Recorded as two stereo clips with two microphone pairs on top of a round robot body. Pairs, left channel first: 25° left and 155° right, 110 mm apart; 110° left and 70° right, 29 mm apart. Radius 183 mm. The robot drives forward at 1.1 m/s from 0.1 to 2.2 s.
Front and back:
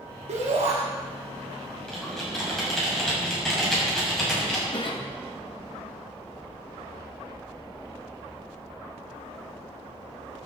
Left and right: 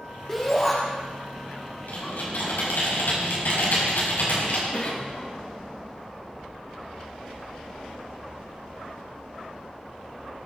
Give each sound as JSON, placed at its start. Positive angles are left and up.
{"t": 0.3, "sound": "a shout", "azimuth_deg": -175, "distance_m": 1.9}
{"t": 1.9, "sound": "typing on a keyboard", "azimuth_deg": 110, "distance_m": 6.0}
{"t": 4.7, "sound": "a cough", "azimuth_deg": 65, "distance_m": 2.5}